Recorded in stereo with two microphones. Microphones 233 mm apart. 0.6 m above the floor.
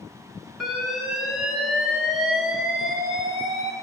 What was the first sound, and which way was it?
An alarm, centre (ahead or behind).